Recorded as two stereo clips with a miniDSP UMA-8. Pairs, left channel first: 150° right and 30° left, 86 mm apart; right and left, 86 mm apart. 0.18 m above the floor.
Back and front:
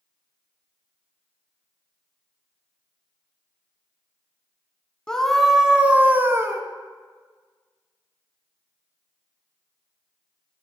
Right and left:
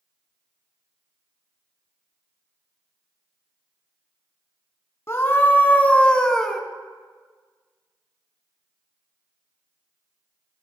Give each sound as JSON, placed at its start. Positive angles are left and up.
{"t": 5.1, "sound": "a scream", "azimuth_deg": -75, "distance_m": 1.1}